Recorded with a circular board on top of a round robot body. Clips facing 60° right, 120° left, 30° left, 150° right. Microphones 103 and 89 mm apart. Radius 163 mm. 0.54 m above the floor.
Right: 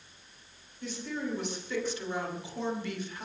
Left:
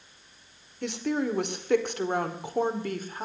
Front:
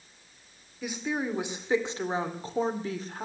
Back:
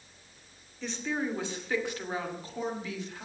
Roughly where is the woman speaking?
Left.